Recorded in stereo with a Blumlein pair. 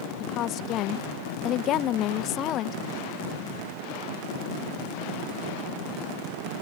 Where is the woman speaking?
35° left.